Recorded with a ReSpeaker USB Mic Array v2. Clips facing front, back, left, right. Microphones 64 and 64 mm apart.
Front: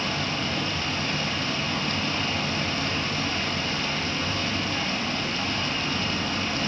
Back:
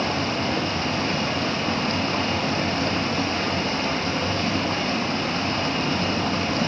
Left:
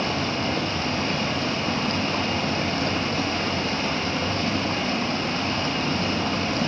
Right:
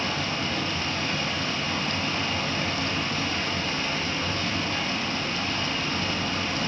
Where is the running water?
135° left, 4.5 m.